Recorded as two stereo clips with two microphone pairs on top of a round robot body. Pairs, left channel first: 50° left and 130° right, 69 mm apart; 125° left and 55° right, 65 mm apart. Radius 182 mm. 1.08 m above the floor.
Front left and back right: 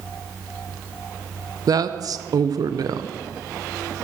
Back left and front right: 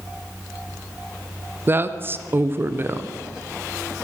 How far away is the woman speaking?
About 1.0 m.